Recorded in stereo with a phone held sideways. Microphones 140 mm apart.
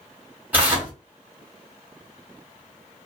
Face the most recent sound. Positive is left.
turn(degrees=-15)  # may be behind; listen again after turning